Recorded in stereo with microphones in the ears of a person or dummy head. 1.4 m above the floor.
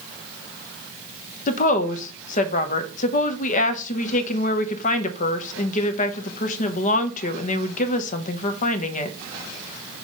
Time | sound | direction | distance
1.5 | a woman speaking | 45° left (ahead or behind) | 1.0 m